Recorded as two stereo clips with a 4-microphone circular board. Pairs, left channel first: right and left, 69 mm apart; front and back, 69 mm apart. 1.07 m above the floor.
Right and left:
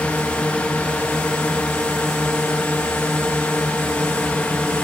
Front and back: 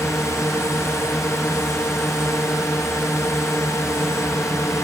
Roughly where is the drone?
Ahead.